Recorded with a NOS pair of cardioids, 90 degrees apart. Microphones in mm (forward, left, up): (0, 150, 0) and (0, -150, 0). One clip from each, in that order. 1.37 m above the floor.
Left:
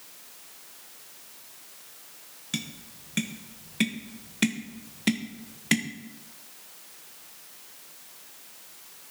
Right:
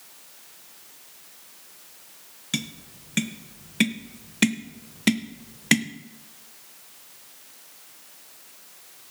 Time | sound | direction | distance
2.5 | tapping | 25° right | 0.9 m